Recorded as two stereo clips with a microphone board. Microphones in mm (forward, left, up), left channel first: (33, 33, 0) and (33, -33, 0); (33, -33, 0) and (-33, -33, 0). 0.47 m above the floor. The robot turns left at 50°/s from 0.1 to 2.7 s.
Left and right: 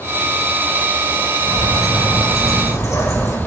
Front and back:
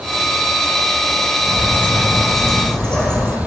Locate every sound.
1.5 s a bird: 135° left, 2.5 m; by 3.4 s 70° left, 2.5 m